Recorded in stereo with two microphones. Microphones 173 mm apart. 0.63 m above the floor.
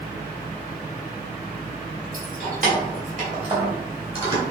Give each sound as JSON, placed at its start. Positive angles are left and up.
{"t": 2.1, "sound": "keys jangling", "side_deg": -60, "distance_m": 2.5}